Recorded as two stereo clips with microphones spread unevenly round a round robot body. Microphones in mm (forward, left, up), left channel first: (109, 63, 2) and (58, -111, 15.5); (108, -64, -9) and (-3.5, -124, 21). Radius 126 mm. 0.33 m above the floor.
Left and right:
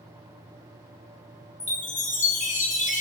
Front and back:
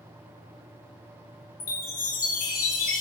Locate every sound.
1.6 s a chime: 25° left, 4 m